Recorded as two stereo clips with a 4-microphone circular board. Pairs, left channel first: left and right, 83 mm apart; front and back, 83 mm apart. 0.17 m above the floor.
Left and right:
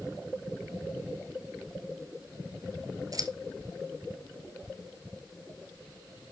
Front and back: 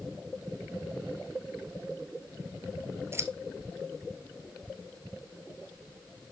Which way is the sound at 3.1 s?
125° right.